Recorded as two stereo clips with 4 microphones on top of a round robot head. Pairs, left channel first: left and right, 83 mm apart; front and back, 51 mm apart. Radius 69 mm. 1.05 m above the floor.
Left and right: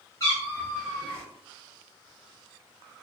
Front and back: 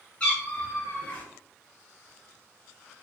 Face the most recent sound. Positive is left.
turn(degrees=45)